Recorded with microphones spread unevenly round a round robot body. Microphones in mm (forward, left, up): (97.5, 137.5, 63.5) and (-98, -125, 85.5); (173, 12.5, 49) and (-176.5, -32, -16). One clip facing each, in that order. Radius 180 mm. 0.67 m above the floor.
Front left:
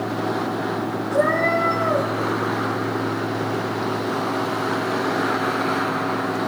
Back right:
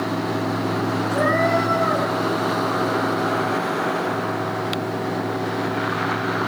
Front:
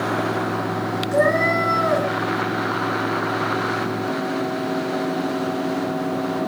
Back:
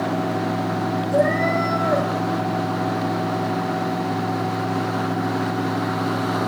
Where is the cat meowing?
50° right, 5 m.